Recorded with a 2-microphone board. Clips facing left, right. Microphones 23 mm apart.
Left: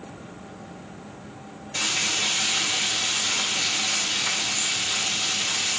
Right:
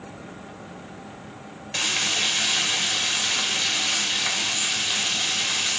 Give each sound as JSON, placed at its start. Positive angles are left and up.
{"t": 1.7, "sound": "frying", "side_deg": -45, "distance_m": 2.0}